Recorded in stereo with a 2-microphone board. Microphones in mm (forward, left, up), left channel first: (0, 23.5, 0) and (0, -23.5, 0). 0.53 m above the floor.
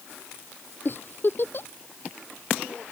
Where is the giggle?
50° left (ahead or behind).